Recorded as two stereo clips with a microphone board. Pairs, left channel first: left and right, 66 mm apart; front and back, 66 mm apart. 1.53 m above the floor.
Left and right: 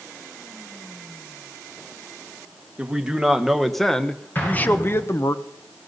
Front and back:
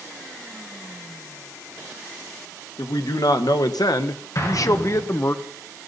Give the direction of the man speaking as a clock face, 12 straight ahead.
12 o'clock.